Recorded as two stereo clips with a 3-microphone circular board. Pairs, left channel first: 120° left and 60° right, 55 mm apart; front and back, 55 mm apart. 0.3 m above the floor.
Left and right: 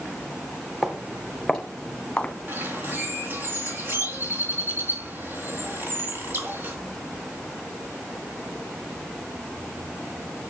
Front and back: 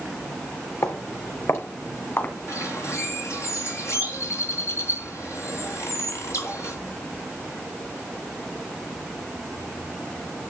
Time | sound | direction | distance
0.8 | footsteps | 20° left | 4.5 m
2.5 | a bird | 15° right | 4 m